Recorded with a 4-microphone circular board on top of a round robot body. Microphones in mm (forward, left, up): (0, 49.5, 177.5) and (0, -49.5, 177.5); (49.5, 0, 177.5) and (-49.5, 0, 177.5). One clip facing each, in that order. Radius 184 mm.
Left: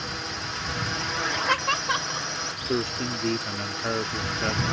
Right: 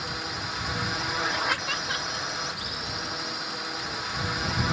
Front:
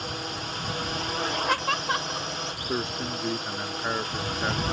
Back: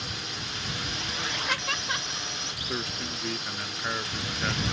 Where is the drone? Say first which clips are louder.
Even, front 5 dB; 5° right.